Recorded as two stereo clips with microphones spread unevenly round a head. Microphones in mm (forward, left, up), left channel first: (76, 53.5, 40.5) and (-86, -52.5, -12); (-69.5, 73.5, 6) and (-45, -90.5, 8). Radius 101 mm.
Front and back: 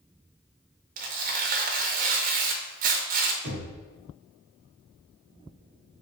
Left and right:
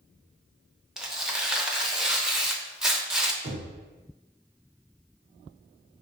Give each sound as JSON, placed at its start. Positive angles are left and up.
{"t": 1.0, "sound": "tearing paper", "azimuth_deg": -165, "distance_m": 0.6}
{"t": 3.4, "sound": "knocking", "azimuth_deg": -105, "distance_m": 1.1}